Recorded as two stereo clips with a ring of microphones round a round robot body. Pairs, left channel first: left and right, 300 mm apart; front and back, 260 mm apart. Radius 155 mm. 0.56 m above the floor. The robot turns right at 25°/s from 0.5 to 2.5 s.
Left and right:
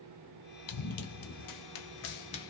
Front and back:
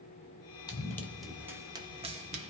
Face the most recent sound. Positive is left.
turn(degrees=160)